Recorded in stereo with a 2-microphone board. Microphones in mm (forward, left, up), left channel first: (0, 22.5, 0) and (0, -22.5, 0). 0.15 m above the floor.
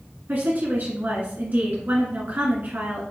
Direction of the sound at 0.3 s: 45° right (ahead or behind).